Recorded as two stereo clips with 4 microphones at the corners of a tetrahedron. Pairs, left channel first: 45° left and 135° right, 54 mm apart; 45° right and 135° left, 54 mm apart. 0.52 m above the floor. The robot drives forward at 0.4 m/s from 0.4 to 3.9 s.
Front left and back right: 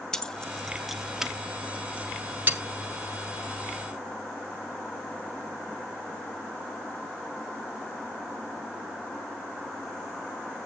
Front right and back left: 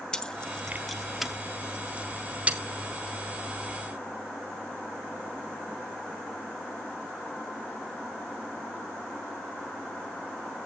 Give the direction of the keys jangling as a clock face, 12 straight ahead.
12 o'clock.